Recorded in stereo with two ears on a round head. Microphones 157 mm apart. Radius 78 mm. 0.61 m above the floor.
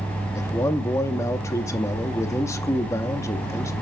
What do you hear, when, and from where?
0.3 s a man speaking: 15° left (ahead or behind), 0.6 m